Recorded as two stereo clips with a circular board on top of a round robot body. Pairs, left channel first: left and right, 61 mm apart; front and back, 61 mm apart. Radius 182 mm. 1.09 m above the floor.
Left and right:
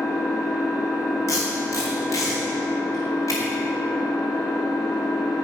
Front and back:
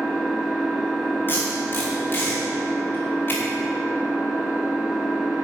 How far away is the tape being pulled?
About 1.3 m.